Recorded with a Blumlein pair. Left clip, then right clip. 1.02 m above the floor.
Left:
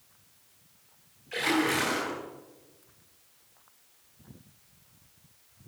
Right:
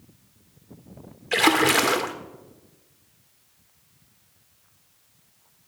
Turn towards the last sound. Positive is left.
turn(degrees=-35)